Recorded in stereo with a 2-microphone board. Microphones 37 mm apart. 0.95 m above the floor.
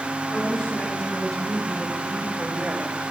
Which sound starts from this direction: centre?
A woman speaking, at 0.3 s.